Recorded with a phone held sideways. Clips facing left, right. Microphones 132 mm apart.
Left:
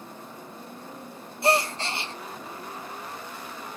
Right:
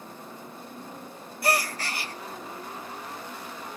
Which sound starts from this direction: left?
A gasp, at 1.4 s.